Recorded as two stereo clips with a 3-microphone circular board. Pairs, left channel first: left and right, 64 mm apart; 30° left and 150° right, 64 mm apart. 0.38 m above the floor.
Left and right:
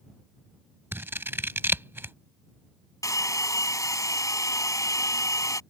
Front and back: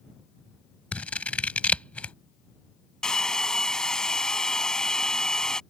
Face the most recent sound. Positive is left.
turn(degrees=110)